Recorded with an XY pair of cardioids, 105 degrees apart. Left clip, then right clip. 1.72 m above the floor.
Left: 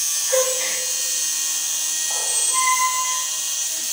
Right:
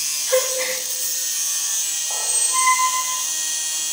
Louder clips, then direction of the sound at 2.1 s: Right 1 dB; 20° right.